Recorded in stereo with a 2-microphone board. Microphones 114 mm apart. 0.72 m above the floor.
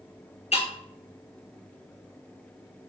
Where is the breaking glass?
75° left (ahead or behind), 2.5 m.